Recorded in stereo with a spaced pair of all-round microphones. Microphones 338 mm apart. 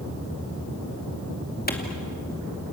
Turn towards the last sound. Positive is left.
turn(degrees=25)  # may be behind; listen again after turning